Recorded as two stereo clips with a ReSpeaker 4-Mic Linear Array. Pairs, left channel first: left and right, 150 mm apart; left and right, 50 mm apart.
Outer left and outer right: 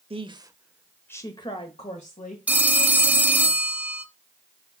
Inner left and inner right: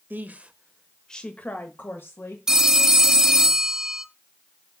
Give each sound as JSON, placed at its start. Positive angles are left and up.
{"t": 0.1, "sound": "a woman speaking", "side_deg": -40, "distance_m": 1.0}
{"t": 2.5, "sound": "a phone ringing", "side_deg": -10, "distance_m": 0.7}